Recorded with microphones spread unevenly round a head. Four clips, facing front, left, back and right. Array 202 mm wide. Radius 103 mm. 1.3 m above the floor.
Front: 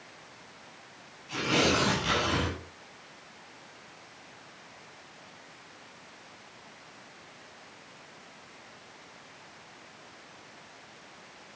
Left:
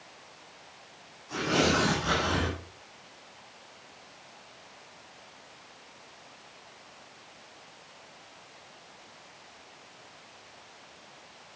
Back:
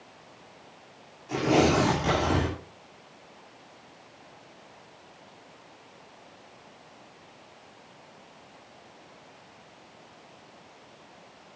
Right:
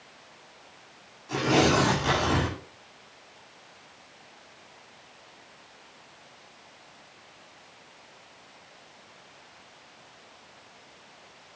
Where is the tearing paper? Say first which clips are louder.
Right 4 dB, back 5 dB; 150° right, 2.5 m.